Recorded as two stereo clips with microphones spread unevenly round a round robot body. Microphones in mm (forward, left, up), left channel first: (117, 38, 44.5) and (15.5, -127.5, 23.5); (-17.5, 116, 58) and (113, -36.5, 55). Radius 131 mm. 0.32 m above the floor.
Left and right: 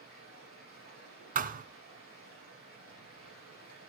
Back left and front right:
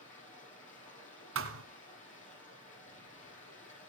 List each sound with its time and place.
0.0 s running water: 80° left, 8 m
1.4 s a thud: 75° right, 1.3 m